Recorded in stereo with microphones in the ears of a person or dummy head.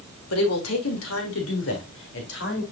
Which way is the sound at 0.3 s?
75° left (ahead or behind).